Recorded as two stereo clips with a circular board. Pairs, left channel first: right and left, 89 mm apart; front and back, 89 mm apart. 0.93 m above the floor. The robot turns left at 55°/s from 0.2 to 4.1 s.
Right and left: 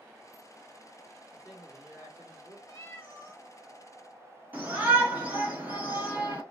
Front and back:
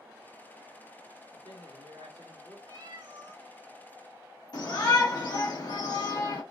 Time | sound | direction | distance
1.3 | a man speaking | 175° right | 2 m
2.7 | a cat meowing | 140° right | 1.5 m
4.5 | a shout | 20° left | 1.4 m